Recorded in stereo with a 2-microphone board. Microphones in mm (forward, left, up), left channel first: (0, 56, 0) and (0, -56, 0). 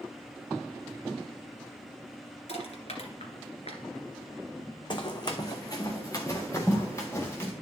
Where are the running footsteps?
50° left (ahead or behind), 1.2 m; by 7.5 s 25° left (ahead or behind), 2.5 m.